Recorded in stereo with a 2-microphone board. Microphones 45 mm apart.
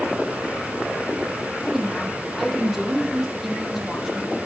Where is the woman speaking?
5° right (ahead or behind), 6.5 m.